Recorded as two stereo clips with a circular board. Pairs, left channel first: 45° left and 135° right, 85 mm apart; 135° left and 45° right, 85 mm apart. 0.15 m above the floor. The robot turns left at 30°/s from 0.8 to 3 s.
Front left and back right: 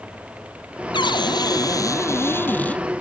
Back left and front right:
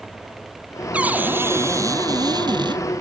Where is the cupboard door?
30° left; by 2.8 s 30° right.